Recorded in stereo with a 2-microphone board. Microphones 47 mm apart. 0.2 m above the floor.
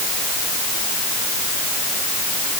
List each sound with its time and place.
Only background noise.